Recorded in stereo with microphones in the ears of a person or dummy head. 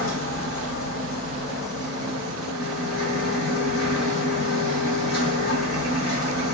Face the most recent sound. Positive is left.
turn(degrees=75)  # may be behind; listen again after turning